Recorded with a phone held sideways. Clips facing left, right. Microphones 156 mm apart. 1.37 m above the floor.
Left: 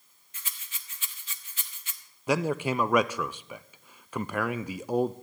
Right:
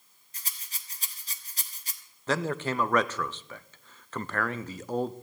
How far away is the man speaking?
About 0.5 m.